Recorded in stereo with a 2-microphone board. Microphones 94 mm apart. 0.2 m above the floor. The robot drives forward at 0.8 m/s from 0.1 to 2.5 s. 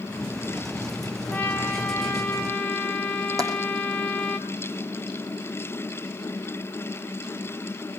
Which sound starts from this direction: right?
Tapping, at 3.4 s.